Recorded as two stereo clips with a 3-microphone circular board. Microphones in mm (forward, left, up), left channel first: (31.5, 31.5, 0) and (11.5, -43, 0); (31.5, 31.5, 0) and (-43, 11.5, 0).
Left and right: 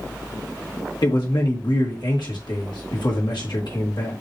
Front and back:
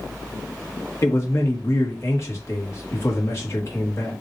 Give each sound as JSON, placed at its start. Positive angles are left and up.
{"t": 1.0, "sound": "a man speaking", "azimuth_deg": 65, "distance_m": 1.5}